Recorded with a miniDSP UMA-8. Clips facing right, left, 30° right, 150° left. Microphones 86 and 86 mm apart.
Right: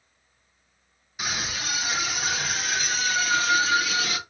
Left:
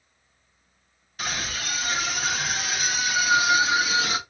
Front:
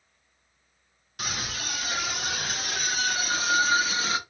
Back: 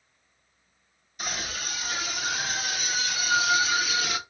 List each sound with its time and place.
1.2 s a scream: 10° right, 3 m; by 4.2 s 30° left, 1.4 m